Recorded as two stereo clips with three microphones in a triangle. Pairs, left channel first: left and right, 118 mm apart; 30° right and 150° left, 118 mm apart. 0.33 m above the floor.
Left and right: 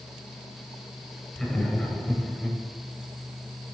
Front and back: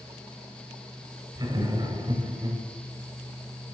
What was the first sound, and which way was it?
Laughter, 170° left.